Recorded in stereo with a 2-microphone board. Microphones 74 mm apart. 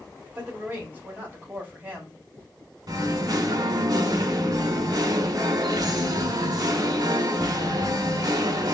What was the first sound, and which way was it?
A woman speaking, 20° right (ahead or behind).